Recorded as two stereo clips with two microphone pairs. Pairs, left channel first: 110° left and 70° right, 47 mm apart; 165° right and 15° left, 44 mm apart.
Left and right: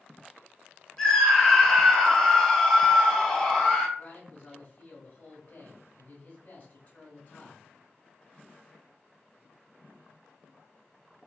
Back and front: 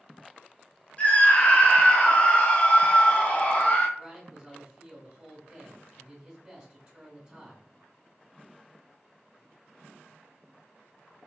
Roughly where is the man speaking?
Left.